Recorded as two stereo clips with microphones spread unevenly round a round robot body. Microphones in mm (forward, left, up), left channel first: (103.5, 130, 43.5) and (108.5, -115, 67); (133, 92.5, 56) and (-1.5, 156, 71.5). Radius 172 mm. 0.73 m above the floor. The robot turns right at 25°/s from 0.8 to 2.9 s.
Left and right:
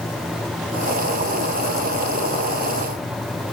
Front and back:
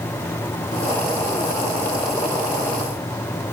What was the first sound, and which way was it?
Only background noise.